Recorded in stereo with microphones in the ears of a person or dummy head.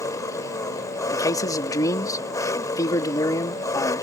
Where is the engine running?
20° left (ahead or behind).